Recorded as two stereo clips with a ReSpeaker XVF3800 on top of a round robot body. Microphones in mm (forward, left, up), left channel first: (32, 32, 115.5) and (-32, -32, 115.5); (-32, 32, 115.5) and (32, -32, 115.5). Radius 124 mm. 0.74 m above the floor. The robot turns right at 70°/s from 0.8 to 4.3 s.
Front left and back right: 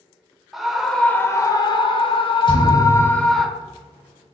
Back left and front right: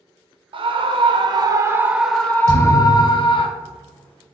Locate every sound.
0.5 s a scream: 50° right, 0.8 m; by 3.5 s 140° left, 0.8 m
2.5 s a thud: 5° left, 0.9 m; by 3.4 s 70° left, 0.9 m